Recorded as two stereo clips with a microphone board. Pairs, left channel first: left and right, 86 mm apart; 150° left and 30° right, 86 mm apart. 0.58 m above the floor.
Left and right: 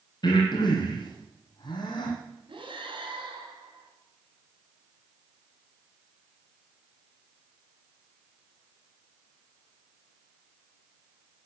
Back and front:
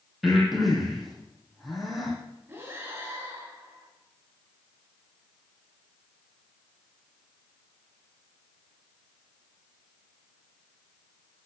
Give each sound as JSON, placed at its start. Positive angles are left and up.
{"t": 0.2, "sound": "breathing", "azimuth_deg": 55, "distance_m": 4.0}
{"t": 2.5, "sound": "breathing", "azimuth_deg": -95, "distance_m": 4.0}